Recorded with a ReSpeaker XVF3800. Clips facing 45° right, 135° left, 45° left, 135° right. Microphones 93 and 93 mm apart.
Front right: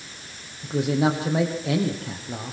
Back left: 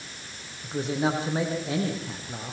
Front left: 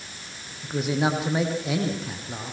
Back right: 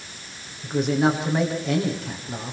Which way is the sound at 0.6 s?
40° right.